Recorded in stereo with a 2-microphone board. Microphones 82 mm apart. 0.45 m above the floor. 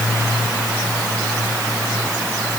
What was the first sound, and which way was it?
Only background noise.